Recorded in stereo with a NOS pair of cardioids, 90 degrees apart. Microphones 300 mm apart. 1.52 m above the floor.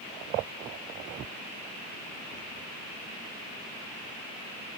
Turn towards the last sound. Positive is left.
No sound to turn to.